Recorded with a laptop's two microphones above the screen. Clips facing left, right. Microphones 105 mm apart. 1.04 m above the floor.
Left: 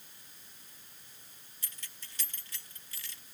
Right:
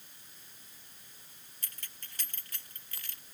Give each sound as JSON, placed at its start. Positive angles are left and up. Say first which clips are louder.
{"t": 1.6, "sound": "keys jangling", "louder": "even", "side_deg": -50}